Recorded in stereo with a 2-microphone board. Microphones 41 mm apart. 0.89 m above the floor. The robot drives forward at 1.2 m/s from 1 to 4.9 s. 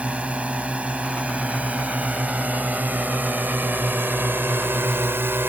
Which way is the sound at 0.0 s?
35° right (ahead or behind).